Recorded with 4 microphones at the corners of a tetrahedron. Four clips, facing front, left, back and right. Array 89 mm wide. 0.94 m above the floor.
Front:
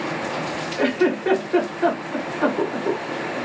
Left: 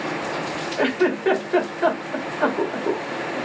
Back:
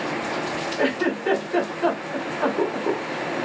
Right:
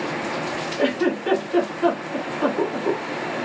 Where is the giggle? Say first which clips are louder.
Left 1 dB, front 4 dB; 75° left, 2 m.